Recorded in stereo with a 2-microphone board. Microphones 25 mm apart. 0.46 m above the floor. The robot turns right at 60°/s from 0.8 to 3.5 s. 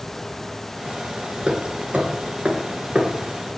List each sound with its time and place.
1.5 s hammering: 40° right (ahead or behind), 1.6 m; by 3.5 s 20° right (ahead or behind), 1.6 m